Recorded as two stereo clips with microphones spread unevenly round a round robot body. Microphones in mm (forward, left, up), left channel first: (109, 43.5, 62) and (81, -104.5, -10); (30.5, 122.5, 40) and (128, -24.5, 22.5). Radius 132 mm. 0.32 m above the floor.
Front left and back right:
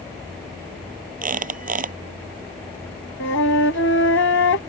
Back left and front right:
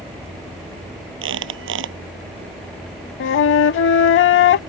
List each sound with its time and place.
1.2 s a squeak: 70° right
3.2 s a flute: 115° left